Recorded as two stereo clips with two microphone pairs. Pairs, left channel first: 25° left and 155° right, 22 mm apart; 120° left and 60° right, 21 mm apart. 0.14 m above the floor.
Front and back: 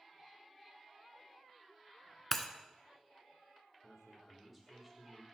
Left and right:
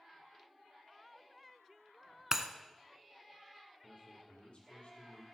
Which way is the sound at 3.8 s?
135° left.